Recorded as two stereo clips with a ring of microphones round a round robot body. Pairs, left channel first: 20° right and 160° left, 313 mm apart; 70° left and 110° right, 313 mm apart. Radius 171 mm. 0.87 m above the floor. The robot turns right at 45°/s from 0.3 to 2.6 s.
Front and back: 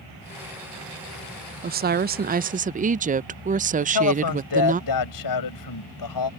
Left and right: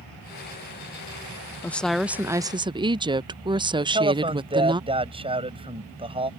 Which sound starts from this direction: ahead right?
A man speaking, at 3.8 s.